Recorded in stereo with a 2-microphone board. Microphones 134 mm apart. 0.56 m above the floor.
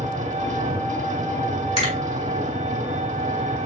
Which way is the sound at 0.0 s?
65° right (ahead or behind).